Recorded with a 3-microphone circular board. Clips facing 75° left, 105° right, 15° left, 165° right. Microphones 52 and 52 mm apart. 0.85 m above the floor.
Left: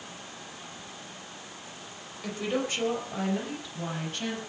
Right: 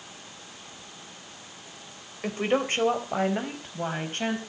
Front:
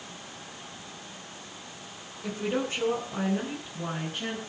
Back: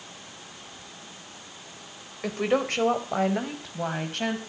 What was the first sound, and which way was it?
A woman speaking, 150° right.